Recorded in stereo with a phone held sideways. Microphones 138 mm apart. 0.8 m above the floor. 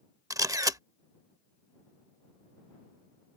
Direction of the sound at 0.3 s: 25° right (ahead or behind).